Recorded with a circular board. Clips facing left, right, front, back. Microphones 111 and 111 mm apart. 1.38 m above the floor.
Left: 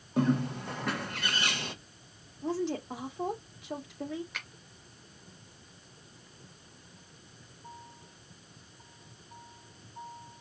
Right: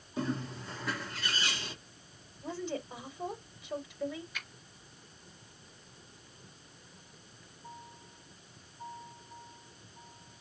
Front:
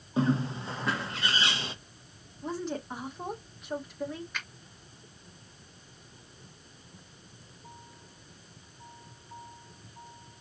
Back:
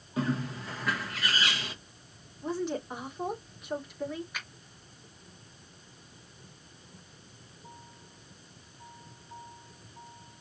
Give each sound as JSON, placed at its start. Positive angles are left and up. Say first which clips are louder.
{"t": 0.2, "sound": "a bird", "louder": "left 8 dB, front 4 dB", "azimuth_deg": 60, "distance_m": 1.1}
{"t": 2.4, "sound": "a woman speaking", "louder": "left 6 dB, back 2 dB", "azimuth_deg": 90, "distance_m": 2.0}
{"t": 4.3, "sound": "a finger snap", "louder": "left 2 dB, front 1 dB", "azimuth_deg": 100, "distance_m": 2.5}